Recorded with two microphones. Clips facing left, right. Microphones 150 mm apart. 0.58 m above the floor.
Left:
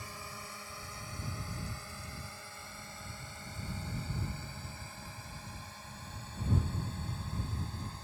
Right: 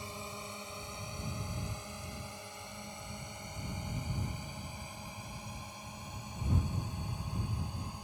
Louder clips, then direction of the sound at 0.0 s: Right 3 dB; 20° right (ahead or behind).